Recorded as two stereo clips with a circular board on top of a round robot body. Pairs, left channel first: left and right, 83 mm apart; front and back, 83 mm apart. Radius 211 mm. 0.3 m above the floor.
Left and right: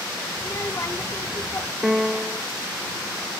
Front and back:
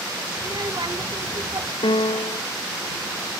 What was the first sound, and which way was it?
A child speaking, 145° left.